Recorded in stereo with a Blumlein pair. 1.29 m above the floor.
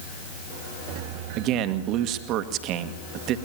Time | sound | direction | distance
1.4 | a man speaking | 40° right | 1.7 m